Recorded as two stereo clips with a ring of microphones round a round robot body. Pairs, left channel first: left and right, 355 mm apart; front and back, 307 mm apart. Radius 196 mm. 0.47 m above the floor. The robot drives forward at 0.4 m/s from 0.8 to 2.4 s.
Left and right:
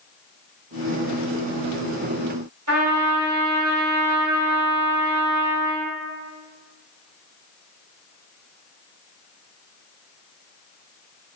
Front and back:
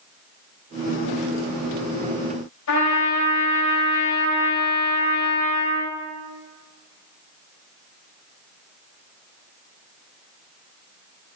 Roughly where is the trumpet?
Ahead right.